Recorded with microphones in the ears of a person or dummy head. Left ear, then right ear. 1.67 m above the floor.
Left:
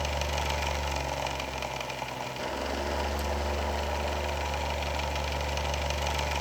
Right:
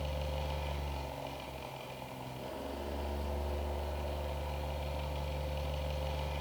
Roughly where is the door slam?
I don't hear a door slam.